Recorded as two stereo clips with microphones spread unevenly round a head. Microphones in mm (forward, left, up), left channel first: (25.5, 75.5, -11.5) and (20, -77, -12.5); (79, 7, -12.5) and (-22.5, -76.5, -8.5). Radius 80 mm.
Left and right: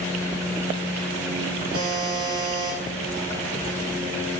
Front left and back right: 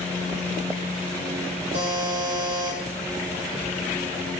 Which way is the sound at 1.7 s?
150° right.